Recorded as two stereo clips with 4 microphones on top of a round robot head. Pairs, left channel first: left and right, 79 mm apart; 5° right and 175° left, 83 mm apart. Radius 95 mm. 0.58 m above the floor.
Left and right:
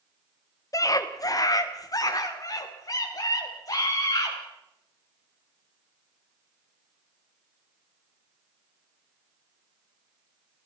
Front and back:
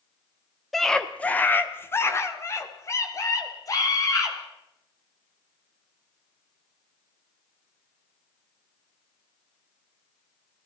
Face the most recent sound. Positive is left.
turn(degrees=40)